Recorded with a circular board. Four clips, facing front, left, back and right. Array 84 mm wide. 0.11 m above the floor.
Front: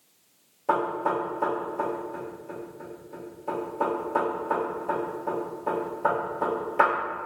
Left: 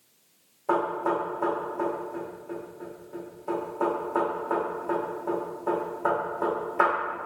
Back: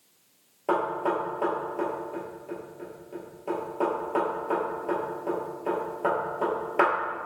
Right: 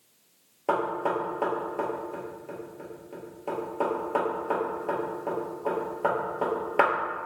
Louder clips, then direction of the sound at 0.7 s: Left 1 dB, front 1 dB; 115° right.